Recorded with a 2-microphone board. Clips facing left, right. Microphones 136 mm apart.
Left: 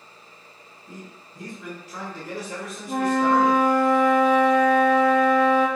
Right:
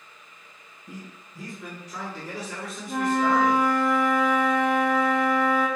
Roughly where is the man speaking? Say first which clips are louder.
Even; centre.